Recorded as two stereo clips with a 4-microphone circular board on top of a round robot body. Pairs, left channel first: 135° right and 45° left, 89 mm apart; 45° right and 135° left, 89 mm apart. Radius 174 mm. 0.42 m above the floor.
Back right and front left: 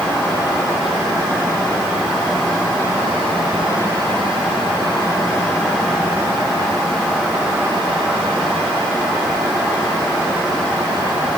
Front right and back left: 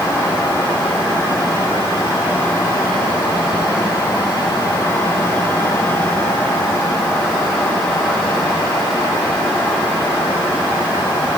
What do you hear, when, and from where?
Only background noise.